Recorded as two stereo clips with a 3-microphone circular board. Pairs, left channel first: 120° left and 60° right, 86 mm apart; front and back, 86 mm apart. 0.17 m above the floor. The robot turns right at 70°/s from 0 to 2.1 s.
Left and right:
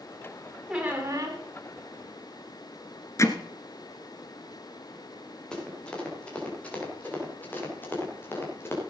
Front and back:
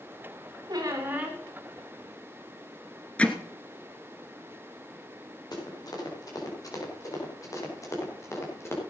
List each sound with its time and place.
0.7 s a squeak: 135° right, 3.5 m; by 1.4 s 85° right, 3.5 m
3.2 s hammering: 75° left, 1.2 m
5.5 s running footsteps: 40° left, 5.5 m; by 8.8 s 60° left, 5.5 m